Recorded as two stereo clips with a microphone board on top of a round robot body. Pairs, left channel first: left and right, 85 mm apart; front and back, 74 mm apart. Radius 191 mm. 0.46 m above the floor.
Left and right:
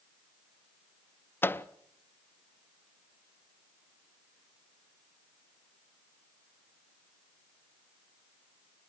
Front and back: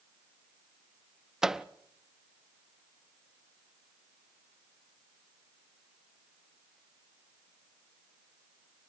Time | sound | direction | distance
1.4 | a microwave | 105° left | 0.8 m